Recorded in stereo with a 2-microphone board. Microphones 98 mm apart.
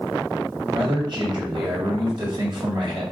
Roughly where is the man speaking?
Right.